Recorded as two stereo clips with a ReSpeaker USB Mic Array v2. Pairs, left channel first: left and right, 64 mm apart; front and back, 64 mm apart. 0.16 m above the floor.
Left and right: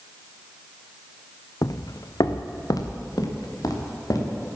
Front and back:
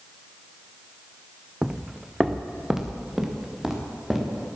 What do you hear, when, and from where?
1.6 s footsteps: 100° left, 0.6 m; by 4.5 s 95° left, 4 m